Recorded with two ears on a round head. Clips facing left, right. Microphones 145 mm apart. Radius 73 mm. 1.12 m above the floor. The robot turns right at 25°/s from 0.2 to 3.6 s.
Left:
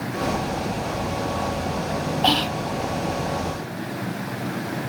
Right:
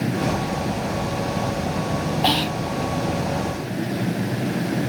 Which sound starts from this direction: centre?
Whispering, at 2.2 s.